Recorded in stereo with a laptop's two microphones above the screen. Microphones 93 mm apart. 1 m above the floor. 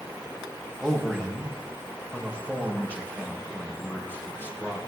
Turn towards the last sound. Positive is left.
turn(degrees=30)  # may be behind; listen again after turning